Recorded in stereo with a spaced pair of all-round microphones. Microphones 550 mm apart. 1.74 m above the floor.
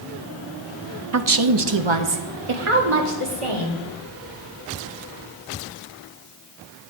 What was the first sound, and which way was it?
A woman speaking, 30° right (ahead or behind).